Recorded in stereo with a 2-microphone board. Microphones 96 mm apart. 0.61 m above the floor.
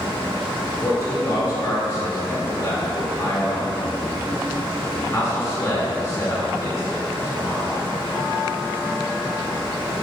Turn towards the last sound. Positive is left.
turn(degrees=30)  # may be behind; listen again after turning